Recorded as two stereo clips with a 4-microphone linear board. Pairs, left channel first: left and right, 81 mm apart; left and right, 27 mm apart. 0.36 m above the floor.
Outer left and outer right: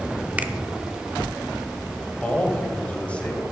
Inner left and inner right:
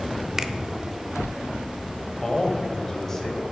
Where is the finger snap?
20° right (ahead or behind), 0.6 m.